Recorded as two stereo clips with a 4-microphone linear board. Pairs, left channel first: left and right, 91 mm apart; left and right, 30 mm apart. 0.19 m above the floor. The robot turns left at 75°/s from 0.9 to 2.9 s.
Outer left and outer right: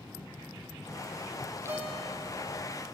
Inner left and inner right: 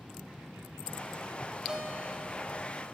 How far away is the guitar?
About 4.5 m.